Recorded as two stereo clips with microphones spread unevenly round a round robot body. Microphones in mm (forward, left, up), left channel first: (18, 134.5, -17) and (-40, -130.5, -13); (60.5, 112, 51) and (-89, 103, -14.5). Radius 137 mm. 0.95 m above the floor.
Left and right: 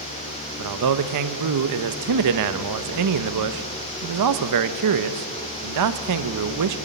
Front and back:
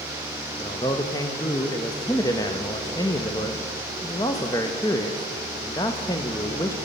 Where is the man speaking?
80° right, 0.7 m.